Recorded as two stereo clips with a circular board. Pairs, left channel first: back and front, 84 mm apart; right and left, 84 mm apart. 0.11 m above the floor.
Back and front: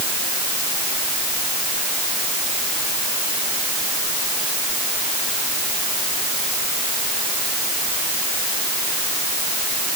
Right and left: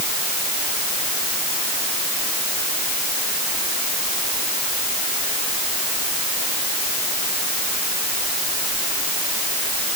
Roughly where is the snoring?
I don't hear snoring.